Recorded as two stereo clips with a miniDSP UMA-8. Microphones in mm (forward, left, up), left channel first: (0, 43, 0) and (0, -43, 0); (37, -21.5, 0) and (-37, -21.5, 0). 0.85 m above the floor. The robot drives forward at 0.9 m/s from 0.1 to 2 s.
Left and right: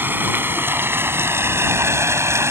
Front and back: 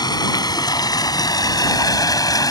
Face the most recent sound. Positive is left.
turn(degrees=-30)